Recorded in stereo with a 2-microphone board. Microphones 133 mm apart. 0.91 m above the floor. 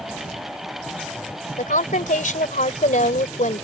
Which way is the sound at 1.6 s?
85° left.